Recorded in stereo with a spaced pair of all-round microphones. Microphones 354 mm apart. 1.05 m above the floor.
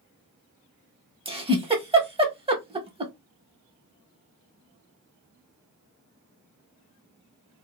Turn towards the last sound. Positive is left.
turn(degrees=-15)  # may be behind; listen again after turning